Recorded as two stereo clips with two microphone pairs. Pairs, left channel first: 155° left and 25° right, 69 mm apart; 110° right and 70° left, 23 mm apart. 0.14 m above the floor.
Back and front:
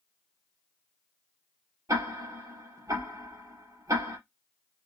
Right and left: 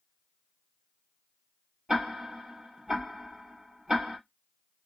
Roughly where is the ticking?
Ahead.